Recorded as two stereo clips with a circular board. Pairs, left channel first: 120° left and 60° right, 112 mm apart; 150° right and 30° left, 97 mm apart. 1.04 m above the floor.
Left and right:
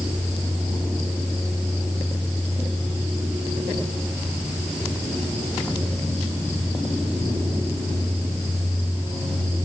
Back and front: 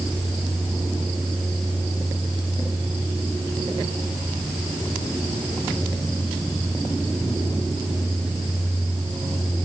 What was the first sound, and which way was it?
Only background noise.